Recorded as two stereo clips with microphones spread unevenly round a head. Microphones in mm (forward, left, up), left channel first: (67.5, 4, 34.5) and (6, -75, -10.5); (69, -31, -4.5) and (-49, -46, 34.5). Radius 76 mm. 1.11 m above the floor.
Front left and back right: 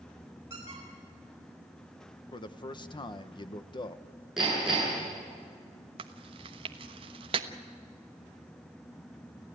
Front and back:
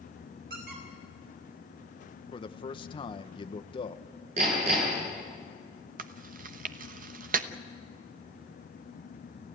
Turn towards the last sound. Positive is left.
turn(degrees=-160)